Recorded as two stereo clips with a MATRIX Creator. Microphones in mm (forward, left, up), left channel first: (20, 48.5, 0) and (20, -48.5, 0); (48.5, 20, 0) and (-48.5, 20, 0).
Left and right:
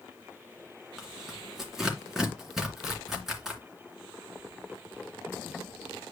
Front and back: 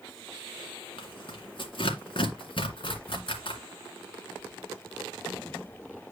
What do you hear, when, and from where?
1.0 s tearing paper: 5° right, 2.5 m